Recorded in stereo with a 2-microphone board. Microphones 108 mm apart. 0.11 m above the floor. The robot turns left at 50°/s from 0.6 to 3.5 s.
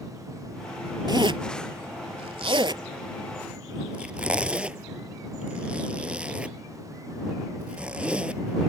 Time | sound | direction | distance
1.1 | a zipper | 40° right (ahead or behind) | ?